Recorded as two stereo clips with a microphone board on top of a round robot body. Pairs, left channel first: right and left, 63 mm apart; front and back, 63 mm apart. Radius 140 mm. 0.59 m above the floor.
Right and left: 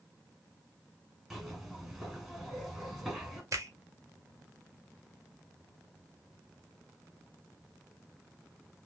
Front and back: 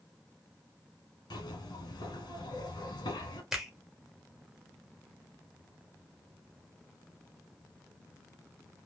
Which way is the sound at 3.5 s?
95° left.